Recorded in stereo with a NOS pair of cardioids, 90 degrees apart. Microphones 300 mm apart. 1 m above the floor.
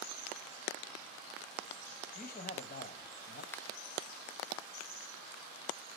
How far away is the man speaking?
About 6 m.